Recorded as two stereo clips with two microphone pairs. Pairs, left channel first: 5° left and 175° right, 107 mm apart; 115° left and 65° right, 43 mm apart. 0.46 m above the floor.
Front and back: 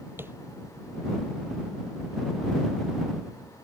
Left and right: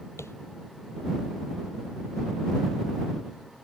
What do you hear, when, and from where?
0.2 s tapping: 115° left